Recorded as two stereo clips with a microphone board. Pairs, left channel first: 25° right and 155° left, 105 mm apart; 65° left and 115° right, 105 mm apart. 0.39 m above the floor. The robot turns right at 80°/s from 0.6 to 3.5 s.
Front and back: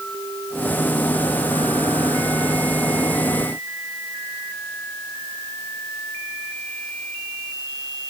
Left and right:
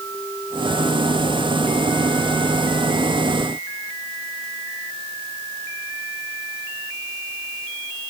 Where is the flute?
No flute in this recording.